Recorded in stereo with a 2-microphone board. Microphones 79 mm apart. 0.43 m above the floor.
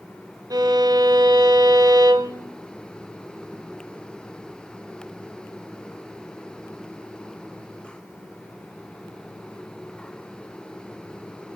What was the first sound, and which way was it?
A violin, 55° right (ahead or behind).